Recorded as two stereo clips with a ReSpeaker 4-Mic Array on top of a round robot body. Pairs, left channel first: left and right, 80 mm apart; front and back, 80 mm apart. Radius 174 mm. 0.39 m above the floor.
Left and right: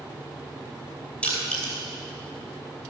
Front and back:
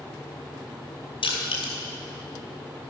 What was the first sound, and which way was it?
Crushing, 10° left.